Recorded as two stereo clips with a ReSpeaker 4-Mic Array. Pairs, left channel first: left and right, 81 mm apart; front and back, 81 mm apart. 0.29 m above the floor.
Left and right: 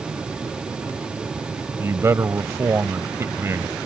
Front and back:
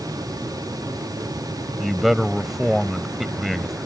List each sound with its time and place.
1.8 s a man speaking: 95° right